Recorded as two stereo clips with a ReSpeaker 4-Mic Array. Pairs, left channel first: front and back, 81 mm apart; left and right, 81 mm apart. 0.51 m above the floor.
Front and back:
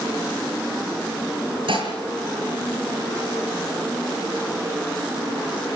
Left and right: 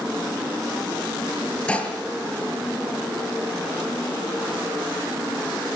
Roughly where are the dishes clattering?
Behind.